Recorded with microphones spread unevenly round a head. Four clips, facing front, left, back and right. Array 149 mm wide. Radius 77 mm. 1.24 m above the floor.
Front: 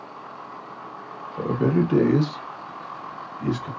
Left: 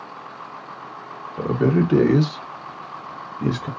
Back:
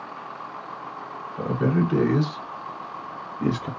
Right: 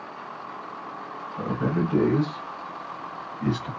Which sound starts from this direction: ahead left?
A man speaking, at 1.4 s.